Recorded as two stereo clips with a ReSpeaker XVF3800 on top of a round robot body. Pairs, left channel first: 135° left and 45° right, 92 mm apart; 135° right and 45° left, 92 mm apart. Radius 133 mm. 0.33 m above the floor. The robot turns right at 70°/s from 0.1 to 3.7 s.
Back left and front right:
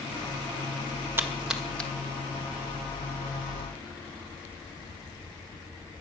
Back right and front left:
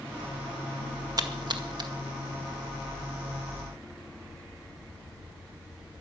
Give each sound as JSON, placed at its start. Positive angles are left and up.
{"t": 1.2, "sound": "a splash", "azimuth_deg": 15, "distance_m": 2.0}